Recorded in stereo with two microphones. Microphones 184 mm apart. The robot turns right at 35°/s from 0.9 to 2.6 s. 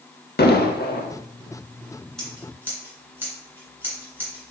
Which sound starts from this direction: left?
An explosion, at 0.4 s.